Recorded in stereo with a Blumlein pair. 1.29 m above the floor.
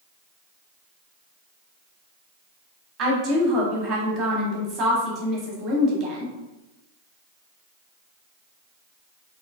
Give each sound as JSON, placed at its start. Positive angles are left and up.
{"t": 3.0, "sound": "a woman speaking", "azimuth_deg": -30, "distance_m": 0.9}